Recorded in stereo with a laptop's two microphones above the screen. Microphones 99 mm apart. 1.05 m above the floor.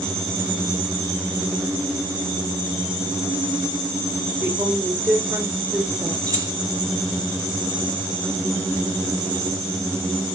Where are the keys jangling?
35° right (ahead or behind), 1.4 m.